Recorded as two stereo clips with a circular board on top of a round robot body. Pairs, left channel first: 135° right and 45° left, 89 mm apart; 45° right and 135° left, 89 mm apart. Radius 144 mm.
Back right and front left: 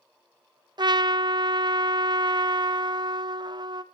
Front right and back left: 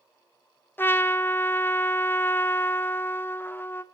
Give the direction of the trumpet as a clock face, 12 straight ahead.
11 o'clock.